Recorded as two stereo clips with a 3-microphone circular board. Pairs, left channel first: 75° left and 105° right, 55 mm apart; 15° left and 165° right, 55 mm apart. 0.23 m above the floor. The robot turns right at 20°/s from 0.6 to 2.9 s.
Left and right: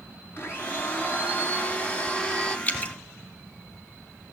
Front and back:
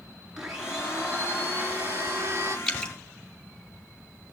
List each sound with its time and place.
0.4 s a blender: 115° left, 3.5 m; by 2.6 s 155° left, 3.5 m
2.7 s dripping: 70° left, 1.8 m; by 2.9 s 75° left, 1.8 m